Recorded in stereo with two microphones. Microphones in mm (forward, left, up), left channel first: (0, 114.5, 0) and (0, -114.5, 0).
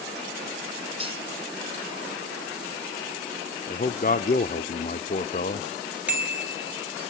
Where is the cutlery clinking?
25° right (ahead or behind), 3.5 m.